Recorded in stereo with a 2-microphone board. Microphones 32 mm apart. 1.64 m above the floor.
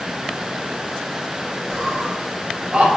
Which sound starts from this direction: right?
Laughter, at 1.7 s.